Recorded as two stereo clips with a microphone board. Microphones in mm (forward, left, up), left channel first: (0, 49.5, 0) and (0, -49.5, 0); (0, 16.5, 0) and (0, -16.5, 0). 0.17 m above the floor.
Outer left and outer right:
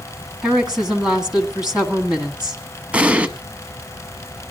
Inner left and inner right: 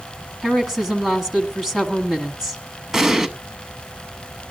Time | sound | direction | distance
0.4 | a woman speaking | 5° right (ahead or behind) | 1.6 m
2.9 | an explosion | 15° right (ahead or behind) | 0.7 m